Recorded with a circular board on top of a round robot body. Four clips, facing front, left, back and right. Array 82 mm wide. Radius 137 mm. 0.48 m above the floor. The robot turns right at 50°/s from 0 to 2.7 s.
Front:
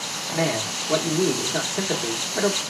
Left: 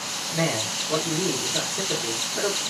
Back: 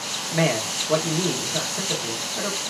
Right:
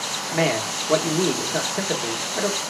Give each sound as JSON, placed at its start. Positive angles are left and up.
{"t": 0.3, "sound": "a man speaking", "azimuth_deg": -125, "distance_m": 1.8}